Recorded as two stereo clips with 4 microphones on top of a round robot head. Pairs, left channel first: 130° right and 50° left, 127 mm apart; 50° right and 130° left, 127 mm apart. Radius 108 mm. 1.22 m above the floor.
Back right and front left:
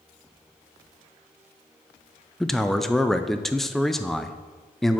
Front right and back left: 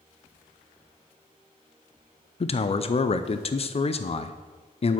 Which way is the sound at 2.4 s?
40° right.